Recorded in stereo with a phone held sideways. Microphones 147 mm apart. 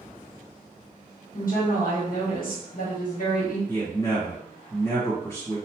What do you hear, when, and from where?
1.3 s a woman speaking: 75° left (ahead or behind), 1.0 m
3.7 s a man speaking: 15° left (ahead or behind), 1.5 m